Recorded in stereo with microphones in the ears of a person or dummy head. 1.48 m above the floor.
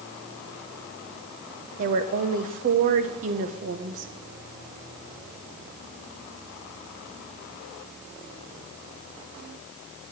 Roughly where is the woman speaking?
Right.